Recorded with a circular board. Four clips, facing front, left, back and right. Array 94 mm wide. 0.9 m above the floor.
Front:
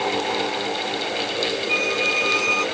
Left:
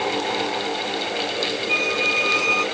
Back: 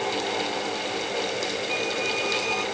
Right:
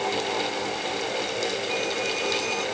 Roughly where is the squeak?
Ahead left.